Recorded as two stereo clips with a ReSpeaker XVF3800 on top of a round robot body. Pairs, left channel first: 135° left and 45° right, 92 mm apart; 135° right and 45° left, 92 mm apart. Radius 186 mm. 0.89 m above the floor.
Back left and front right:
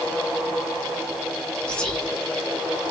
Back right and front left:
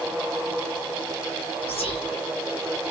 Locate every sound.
1.7 s whispering: 145° right, 1.8 m